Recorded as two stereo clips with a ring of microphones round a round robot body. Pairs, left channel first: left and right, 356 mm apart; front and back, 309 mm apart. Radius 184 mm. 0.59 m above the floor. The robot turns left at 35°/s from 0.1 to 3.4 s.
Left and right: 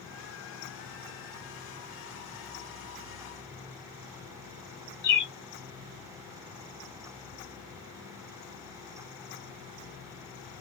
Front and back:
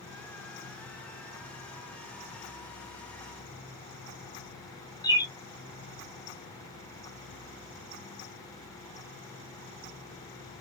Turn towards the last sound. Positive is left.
turn(degrees=70)